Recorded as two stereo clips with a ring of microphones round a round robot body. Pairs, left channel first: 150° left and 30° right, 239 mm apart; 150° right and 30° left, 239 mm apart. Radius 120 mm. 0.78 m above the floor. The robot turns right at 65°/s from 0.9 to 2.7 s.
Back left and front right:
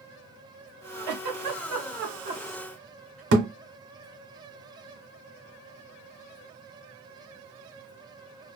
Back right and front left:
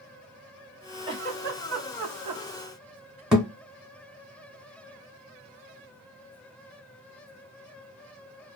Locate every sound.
1.1 s a giggle: 45° right, 0.8 m; by 3.2 s 65° left, 0.8 m
3.3 s a thud: 60° right, 0.7 m